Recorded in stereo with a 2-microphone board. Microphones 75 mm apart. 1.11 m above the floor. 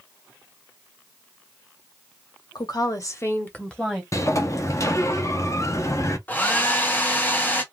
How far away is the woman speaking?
About 1.0 m.